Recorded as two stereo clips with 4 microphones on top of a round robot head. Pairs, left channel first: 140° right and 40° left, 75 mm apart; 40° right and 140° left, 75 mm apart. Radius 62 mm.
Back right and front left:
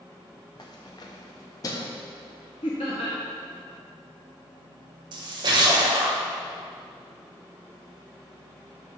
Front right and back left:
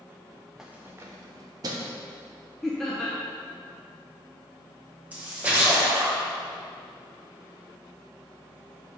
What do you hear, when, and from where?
0.6 s keys jangling: 140° right, 0.5 m; by 2.0 s 175° left, 1.0 m
2.6 s laughter: 125° right, 0.9 m
5.1 s a splash: 70° left, 1.4 m